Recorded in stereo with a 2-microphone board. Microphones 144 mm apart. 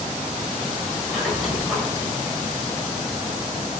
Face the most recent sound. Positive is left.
turn(degrees=0)  # may be behind; listen again after turning